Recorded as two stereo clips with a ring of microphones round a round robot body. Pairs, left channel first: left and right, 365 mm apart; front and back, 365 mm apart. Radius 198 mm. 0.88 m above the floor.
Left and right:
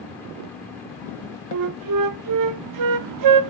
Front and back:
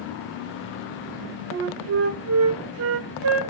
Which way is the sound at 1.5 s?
125° right.